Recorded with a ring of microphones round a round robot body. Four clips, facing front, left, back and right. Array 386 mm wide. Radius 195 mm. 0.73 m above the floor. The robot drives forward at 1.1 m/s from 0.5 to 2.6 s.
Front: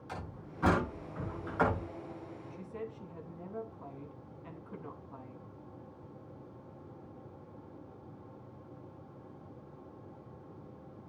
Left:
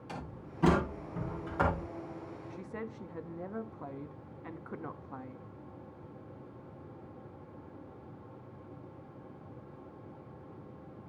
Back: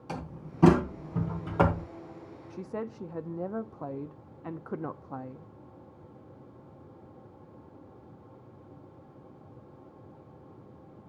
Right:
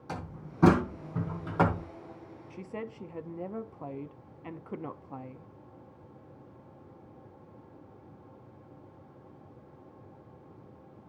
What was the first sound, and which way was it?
A door slam, 140° right.